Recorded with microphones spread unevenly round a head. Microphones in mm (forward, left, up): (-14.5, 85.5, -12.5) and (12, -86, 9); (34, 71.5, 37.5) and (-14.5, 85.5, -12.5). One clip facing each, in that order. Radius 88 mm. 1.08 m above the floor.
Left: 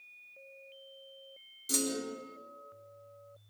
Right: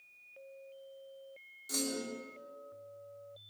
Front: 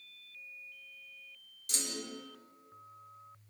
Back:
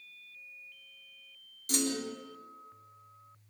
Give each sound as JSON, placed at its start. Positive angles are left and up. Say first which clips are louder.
{"t": 1.7, "sound": "a clunk", "louder": "left 3 dB, back 9 dB", "azimuth_deg": 150, "distance_m": 1.6}